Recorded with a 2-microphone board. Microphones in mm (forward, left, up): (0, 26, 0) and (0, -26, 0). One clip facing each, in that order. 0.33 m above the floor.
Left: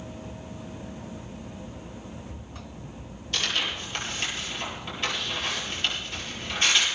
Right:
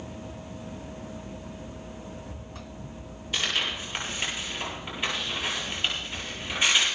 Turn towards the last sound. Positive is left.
turn(degrees=-10)  # may be behind; listen again after turning